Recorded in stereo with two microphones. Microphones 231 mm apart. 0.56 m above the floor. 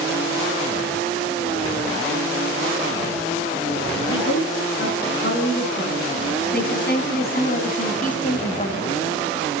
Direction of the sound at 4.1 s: 50° left (ahead or behind).